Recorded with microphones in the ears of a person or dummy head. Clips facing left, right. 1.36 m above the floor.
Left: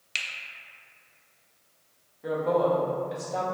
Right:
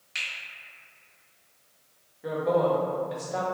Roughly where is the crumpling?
I don't hear crumpling.